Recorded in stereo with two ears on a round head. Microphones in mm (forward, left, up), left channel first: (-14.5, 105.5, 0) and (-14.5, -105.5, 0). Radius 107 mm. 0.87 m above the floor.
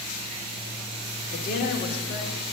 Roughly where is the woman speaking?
Left.